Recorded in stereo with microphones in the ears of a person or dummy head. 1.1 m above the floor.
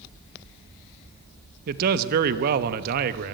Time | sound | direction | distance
1.7 | a man speaking | 55° right (ahead or behind) | 1.1 m